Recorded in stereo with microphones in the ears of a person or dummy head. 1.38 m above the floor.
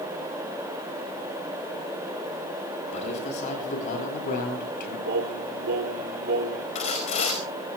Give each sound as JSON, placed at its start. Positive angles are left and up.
{"t": 2.9, "sound": "a man speaking", "side_deg": 40, "distance_m": 9.5}
{"t": 5.0, "sound": "singing", "side_deg": -55, "distance_m": 2.5}
{"t": 6.8, "sound": "sawing", "side_deg": 40, "distance_m": 5.0}